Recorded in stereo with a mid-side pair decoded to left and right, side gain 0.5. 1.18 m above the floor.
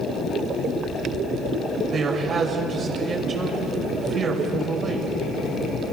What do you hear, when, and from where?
1.9 s a man speaking: 50° right, 6.5 m